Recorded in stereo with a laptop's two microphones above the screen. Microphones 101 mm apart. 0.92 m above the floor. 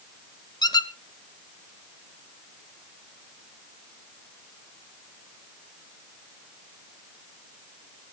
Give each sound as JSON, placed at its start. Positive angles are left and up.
{"t": 0.6, "sound": "a squeak", "side_deg": 40, "distance_m": 0.9}